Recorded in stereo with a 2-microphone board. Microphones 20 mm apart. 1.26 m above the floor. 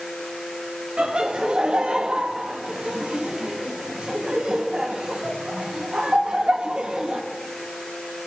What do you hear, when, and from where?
1.0 s laughter: 65° right (ahead or behind), 1.4 m